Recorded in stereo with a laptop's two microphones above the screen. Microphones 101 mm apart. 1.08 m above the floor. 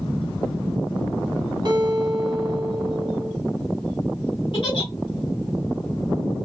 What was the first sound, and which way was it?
A guitar, 45° right (ahead or behind).